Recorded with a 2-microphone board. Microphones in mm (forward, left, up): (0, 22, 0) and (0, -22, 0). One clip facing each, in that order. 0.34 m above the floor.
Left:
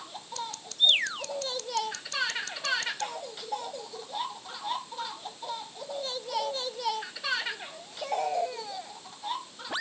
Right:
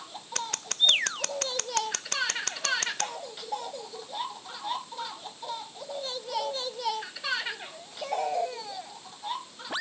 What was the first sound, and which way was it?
Scissors, 65° right (ahead or behind).